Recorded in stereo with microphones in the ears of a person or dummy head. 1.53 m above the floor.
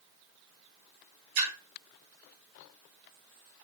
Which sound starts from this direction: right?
A splash, at 1.4 s.